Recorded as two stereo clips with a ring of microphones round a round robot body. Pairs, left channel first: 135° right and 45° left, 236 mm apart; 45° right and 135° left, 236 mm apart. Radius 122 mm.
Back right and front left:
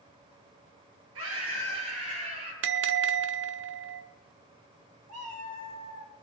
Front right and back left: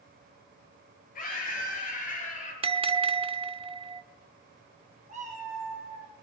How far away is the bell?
About 0.9 m.